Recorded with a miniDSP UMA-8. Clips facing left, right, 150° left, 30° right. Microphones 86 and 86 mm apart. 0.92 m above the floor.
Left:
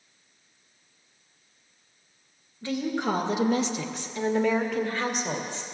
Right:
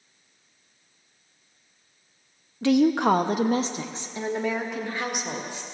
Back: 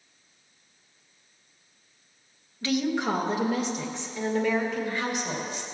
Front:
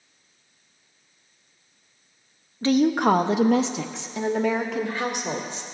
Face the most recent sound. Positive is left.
turn(degrees=-10)